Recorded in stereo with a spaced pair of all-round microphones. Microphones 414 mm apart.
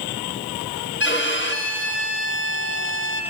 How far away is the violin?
About 1.7 m.